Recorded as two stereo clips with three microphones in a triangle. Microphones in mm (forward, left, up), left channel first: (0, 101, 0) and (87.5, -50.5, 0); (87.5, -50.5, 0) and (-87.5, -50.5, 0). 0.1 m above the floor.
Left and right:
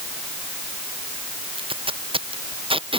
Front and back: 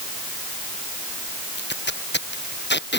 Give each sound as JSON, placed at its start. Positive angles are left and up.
{"t": 1.6, "sound": "tape being pulled", "azimuth_deg": 0}